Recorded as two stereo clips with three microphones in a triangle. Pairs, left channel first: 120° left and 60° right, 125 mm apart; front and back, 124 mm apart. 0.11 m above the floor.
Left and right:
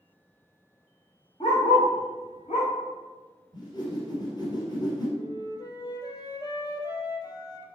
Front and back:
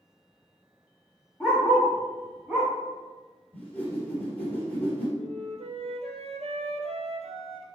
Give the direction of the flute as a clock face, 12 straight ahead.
6 o'clock.